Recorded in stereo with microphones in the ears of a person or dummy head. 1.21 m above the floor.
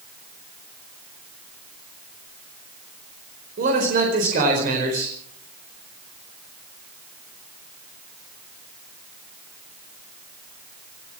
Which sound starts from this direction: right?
A man speaking, at 3.6 s.